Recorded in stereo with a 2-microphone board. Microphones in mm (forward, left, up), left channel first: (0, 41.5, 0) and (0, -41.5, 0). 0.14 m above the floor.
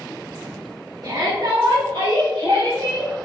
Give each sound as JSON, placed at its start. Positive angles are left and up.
{"t": 1.0, "sound": "a shout", "side_deg": -50, "distance_m": 1.9}